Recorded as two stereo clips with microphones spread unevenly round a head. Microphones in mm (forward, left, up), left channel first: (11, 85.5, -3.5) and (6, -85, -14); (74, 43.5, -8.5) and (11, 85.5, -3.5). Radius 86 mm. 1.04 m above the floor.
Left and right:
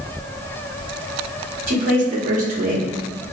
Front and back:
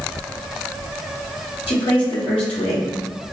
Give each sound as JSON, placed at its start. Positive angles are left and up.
{"t": 1.7, "sound": "a woman speaking", "azimuth_deg": -45, "distance_m": 1.9}